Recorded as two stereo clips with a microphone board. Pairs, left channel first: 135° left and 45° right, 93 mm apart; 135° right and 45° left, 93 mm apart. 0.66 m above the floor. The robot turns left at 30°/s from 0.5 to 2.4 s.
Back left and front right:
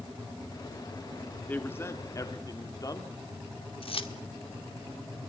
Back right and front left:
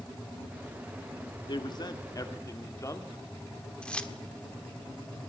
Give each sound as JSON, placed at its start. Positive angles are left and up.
{"t": 1.5, "sound": "a man speaking", "azimuth_deg": -155, "distance_m": 1.8}
{"t": 3.8, "sound": "keys jangling", "azimuth_deg": 145, "distance_m": 1.2}